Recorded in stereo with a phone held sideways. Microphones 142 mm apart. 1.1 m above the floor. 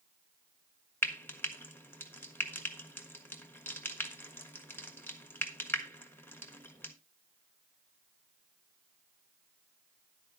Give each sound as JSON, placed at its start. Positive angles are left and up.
{"t": 1.0, "sound": "frying", "side_deg": 15, "distance_m": 1.4}